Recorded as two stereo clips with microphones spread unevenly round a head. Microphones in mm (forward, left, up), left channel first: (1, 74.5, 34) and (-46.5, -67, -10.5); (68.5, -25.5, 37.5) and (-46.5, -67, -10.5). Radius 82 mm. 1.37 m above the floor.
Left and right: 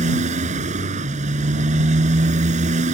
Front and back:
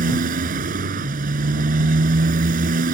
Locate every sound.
0.0 s a motorcycle: 150° right